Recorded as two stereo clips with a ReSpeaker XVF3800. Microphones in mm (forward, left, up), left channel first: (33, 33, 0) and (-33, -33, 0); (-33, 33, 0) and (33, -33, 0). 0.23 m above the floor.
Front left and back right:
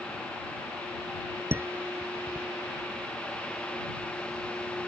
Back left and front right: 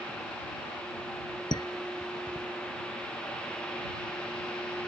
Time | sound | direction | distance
1.5 | dishes clattering | 165° left | ?